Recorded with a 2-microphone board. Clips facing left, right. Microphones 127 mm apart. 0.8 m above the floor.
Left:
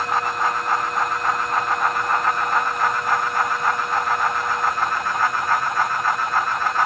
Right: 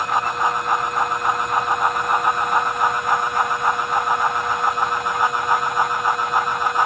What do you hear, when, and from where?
Only background noise.